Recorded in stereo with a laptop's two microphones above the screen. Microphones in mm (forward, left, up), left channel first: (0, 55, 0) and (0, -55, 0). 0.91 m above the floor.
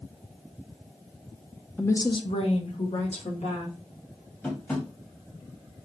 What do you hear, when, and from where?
1.8 s a woman speaking: 10° left (ahead or behind), 0.5 m; by 3.8 s 80° left, 2.5 m
4.4 s tapping: 15° left (ahead or behind), 1.3 m